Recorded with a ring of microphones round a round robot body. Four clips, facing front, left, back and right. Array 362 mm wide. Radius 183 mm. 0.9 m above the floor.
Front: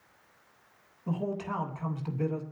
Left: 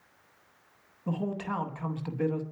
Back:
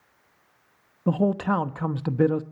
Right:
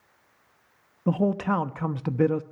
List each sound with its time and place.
1.1 s a man speaking: 145° right, 1.1 m